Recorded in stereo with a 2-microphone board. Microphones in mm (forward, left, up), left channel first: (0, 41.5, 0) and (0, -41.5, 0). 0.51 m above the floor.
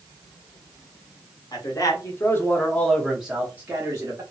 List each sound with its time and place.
1.5 s a man speaking: 50° left (ahead or behind), 1.2 m; by 4.2 s 35° right (ahead or behind), 1.1 m